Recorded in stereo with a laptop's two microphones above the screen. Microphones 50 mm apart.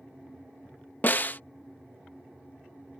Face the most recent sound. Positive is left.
turn(degrees=45)  # may be behind; listen again after turning